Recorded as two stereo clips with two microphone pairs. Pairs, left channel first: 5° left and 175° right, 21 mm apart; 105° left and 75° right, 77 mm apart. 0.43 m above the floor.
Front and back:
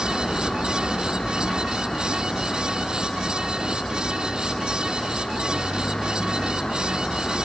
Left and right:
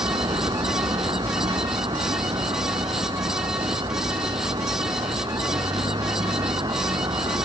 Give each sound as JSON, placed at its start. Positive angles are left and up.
{"t": 0.0, "sound": "a vehicle", "azimuth_deg": -60}